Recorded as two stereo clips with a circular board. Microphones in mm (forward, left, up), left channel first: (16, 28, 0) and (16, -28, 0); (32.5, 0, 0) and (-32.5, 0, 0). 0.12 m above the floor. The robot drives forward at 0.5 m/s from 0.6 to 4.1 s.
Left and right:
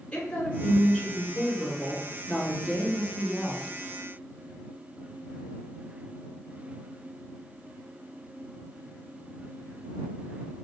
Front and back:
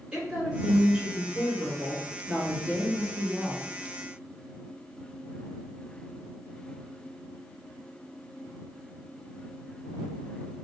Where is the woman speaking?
125° left, 1.5 m; by 3.6 s 165° left, 2.5 m.